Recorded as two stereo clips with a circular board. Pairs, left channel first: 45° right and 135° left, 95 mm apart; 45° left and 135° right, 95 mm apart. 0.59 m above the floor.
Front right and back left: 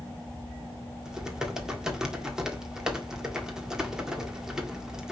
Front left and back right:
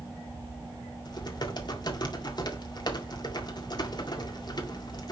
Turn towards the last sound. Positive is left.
turn(degrees=55)